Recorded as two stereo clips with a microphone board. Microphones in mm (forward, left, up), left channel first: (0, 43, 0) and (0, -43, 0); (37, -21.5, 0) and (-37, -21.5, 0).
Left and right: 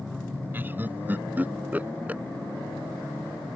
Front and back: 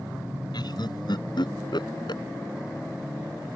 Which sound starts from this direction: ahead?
Laughter, at 0.5 s.